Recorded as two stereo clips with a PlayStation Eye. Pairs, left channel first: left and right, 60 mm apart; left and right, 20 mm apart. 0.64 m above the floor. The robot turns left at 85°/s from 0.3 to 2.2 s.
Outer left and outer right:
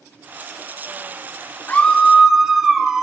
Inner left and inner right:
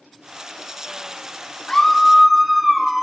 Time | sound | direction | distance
1.7 | a scream | 35° left | 1.4 m